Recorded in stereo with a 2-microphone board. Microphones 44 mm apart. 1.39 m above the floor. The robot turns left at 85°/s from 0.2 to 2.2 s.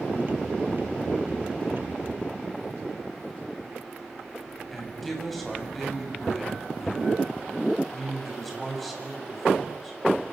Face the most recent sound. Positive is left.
turn(degrees=5)  # may be behind; listen again after turning